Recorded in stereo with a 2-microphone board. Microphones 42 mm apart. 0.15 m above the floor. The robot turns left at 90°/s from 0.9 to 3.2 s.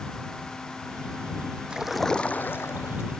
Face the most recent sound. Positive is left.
turn(degrees=65)